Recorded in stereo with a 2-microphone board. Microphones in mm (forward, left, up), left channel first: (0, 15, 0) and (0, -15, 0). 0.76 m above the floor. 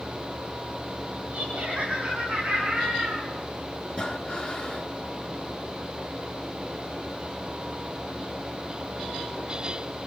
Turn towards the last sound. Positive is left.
turn(degrees=35)  # may be behind; listen again after turning